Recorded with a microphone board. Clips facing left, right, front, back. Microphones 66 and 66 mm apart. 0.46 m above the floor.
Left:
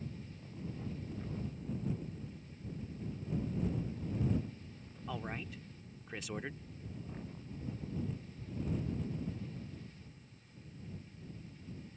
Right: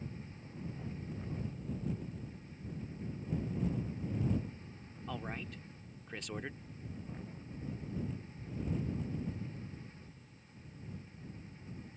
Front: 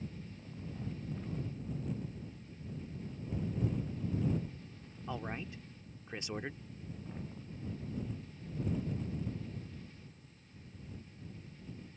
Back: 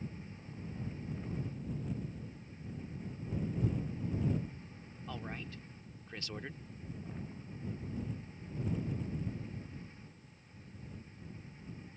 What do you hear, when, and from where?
5.1 s a man speaking: 15° left